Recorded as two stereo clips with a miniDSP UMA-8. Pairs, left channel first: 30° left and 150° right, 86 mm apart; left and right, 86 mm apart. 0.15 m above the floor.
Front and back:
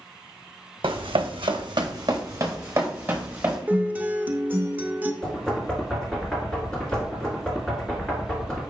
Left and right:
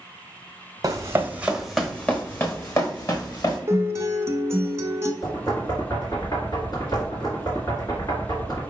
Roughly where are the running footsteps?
Behind right.